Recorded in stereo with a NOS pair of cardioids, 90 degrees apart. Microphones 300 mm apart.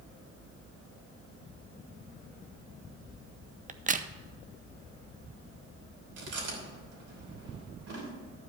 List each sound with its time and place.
3.7 s a crack: 25° right, 0.6 m
6.2 s chewing: 55° right, 3 m